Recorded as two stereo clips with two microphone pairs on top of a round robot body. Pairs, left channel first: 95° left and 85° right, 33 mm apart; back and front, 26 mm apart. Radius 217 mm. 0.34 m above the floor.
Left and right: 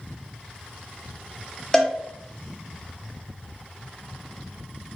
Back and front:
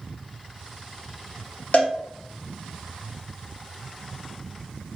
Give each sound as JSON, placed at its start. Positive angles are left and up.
{"t": 1.7, "sound": "a cowbell", "azimuth_deg": 160, "distance_m": 1.0}